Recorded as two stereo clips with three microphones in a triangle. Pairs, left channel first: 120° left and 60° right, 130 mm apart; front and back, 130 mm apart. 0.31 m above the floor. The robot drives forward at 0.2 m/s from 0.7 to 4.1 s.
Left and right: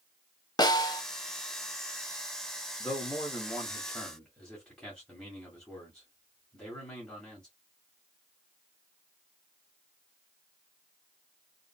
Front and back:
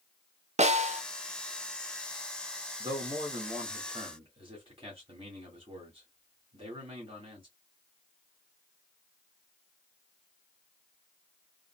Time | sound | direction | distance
0.6 | a snare drum | 170° left | 0.5 m
2.8 | a man speaking | 155° right | 1.4 m